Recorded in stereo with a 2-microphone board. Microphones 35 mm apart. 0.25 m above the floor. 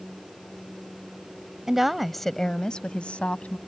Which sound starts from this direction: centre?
A woman speaking, at 1.7 s.